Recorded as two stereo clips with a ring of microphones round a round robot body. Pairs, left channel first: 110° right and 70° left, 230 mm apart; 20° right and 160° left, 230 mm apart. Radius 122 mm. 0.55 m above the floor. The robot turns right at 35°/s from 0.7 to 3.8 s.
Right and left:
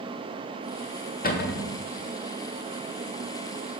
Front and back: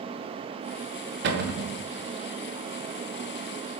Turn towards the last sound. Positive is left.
turn(degrees=-75)